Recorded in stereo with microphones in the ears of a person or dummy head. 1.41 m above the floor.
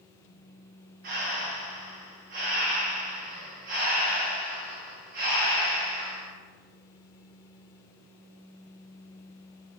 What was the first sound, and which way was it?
Breathing, 40° right (ahead or behind).